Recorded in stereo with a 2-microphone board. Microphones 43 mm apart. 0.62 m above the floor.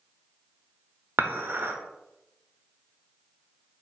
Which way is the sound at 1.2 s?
60° right (ahead or behind).